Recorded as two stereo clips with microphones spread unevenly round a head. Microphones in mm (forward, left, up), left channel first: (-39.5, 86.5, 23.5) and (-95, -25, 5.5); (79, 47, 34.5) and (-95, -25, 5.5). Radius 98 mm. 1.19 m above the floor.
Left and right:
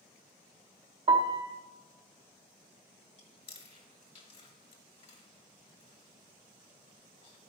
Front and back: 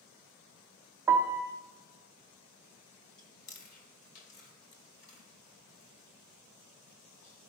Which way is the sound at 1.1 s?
90° right.